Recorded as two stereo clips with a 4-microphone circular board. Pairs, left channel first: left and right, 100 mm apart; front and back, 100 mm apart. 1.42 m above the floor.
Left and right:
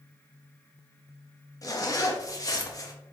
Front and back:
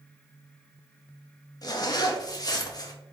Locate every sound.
1.6 s a zipper: 40° left, 0.5 m